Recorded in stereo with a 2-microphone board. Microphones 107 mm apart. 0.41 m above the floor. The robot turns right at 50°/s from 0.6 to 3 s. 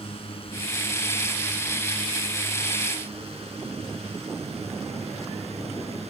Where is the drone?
60° left (ahead or behind); by 6.1 s 75° right (ahead or behind).